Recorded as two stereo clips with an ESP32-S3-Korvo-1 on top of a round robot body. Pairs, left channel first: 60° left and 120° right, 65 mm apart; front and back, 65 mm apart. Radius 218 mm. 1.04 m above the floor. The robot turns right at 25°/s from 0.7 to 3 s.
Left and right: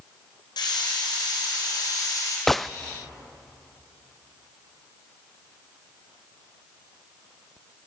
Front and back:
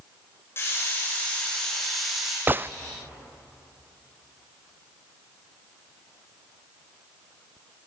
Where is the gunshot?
145° left, 0.6 m; by 2.7 s 150° left, 0.6 m.